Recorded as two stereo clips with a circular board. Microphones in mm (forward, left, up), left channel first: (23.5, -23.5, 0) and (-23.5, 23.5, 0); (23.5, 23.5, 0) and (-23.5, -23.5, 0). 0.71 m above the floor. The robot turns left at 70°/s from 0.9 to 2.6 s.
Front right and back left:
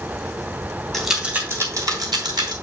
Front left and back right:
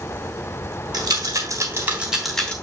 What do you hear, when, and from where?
0.9 s a rattle: 130° right, 3 m; by 2.5 s 115° left, 3 m